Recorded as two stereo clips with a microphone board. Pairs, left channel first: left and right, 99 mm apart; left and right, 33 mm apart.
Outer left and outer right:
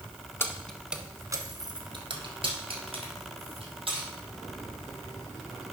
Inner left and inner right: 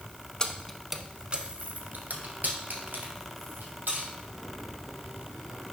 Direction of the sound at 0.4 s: 25° left (ahead or behind).